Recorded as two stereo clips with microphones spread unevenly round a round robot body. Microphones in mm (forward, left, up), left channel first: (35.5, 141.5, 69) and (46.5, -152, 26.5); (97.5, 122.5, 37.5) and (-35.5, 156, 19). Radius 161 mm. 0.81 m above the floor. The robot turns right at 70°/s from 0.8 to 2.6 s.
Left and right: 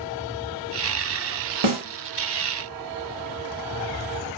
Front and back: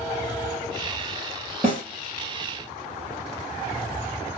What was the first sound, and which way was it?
A snare drum, 105° right.